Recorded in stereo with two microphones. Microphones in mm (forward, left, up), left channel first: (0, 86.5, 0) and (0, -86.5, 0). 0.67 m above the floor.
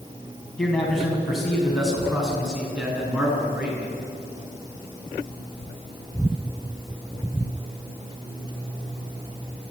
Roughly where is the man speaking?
Centre.